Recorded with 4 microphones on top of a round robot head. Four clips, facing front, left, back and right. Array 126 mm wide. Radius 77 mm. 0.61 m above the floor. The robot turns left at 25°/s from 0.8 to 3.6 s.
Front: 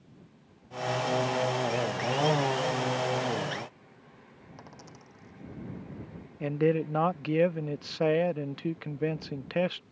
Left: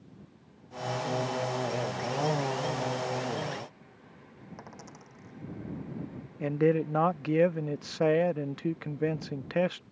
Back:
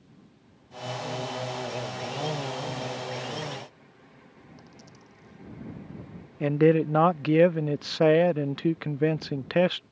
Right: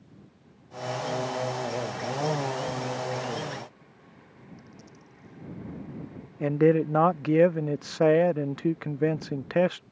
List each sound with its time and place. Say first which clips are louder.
4.6 s a dropped coin: left 3 dB, front 2 dB; 65° left
6.4 s a man speaking: right 4 dB, back 6 dB; 145° right